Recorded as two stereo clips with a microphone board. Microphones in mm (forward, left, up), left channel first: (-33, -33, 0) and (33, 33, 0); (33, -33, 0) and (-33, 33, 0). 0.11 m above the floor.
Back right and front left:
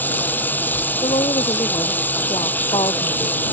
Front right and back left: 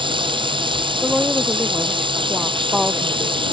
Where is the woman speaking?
140° right.